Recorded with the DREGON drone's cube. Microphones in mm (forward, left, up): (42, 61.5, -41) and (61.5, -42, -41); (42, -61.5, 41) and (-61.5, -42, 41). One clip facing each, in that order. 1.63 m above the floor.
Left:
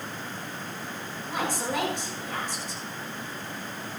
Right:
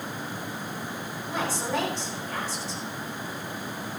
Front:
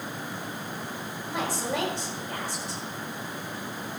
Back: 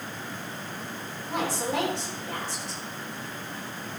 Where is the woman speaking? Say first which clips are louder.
Even, back 1 dB; 175° left, 8 m.